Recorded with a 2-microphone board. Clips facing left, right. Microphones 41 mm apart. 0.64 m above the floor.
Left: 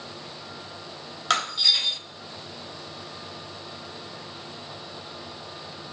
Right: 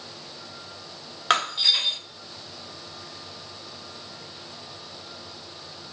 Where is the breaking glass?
30° right (ahead or behind), 1.6 m.